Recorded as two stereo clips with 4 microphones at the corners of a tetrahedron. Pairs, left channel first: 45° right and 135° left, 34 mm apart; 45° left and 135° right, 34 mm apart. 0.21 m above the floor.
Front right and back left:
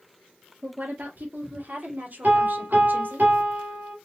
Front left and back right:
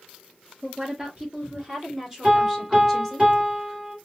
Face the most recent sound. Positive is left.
turn(degrees=160)